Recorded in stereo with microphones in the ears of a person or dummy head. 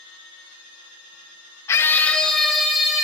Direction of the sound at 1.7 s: 15° left (ahead or behind).